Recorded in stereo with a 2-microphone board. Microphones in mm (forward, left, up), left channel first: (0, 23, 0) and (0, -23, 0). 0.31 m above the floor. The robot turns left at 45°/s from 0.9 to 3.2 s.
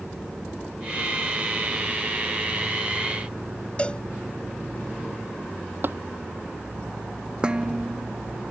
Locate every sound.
3.8 s a cowbell: 25° left (ahead or behind)
5.8 s tapping: 45° right (ahead or behind)
7.4 s dishes clattering: 20° right (ahead or behind)